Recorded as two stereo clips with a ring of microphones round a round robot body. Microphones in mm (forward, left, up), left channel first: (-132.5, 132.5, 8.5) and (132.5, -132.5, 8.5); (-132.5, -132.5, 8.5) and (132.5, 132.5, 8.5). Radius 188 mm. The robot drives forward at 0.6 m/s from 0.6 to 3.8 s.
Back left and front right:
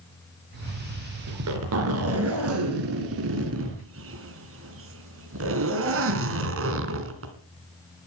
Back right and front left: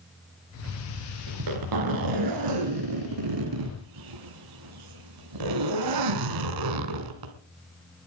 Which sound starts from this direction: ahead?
A zipper, at 1.3 s.